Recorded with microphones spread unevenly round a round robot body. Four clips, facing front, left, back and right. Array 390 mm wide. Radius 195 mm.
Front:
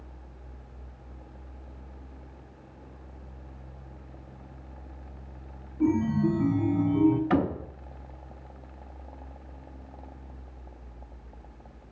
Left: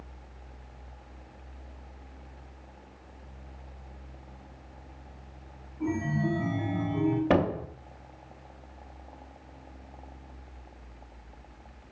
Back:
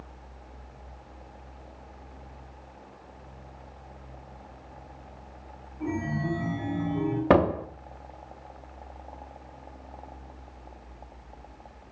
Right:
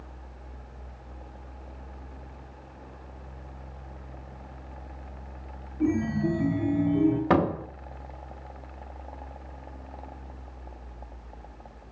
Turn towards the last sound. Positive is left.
turn(degrees=180)